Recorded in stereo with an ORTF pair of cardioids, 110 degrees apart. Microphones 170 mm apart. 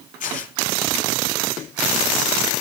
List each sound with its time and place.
0.2 s tearing paper: 50° left, 8 m